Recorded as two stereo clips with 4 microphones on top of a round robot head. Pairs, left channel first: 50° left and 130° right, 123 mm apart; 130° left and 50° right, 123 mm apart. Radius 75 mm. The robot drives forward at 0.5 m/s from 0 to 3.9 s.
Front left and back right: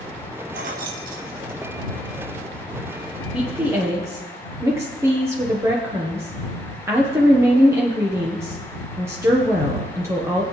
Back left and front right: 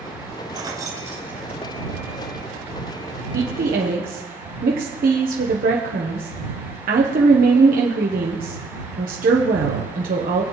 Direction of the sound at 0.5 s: 105° right.